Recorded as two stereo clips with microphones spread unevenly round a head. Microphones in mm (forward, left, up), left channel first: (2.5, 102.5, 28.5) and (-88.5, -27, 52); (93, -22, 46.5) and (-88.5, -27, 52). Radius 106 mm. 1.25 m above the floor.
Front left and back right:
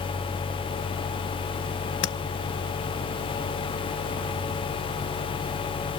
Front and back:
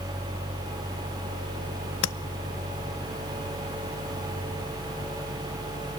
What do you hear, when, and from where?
2.0 s tapping: 25° left, 0.7 m